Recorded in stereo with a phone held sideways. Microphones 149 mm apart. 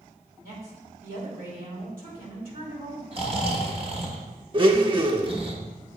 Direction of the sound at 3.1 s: 40° right (ahead or behind).